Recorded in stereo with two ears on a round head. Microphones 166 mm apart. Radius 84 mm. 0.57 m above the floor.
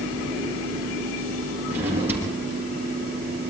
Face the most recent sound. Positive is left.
turn(degrees=-10)  # may be behind; listen again after turning